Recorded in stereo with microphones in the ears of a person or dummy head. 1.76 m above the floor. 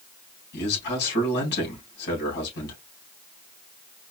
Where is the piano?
No piano in this recording.